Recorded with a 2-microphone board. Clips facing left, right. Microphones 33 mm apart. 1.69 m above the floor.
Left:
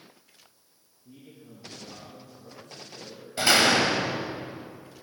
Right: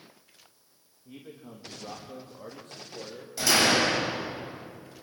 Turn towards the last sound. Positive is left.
turn(degrees=40)  # may be behind; listen again after turning